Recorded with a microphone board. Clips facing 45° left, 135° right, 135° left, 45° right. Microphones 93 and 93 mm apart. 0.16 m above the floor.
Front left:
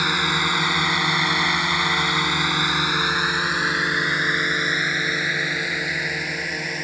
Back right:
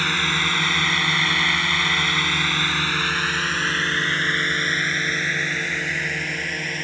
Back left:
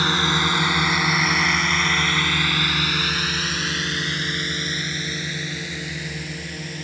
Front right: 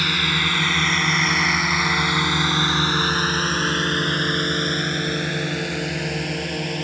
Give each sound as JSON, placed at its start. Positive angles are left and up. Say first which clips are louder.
{"t": 0.0, "sound": "a drone", "louder": "front left 2 dB, back left 3 dB", "azimuth_deg": 110}